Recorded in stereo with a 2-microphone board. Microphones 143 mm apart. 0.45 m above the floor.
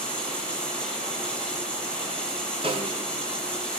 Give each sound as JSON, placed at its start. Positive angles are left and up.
{"t": 0.0, "sound": "running water", "side_deg": 5, "distance_m": 8.5}
{"t": 2.6, "sound": "a snare drum", "side_deg": -40, "distance_m": 7.0}